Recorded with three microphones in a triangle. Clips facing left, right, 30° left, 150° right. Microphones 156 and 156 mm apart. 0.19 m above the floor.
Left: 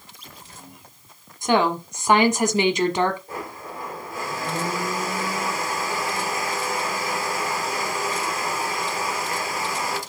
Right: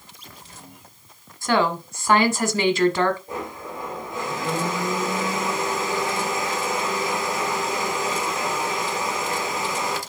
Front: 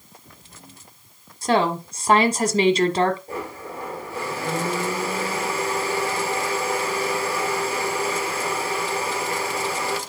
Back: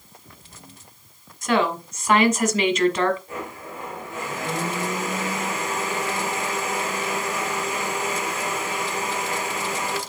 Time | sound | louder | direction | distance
1.4 | a woman speaking | left 1 dB, front 1 dB | 35° left | 1.3 m
3.3 | a blender | right 2 dB, front 2 dB | 25° right | 1.9 m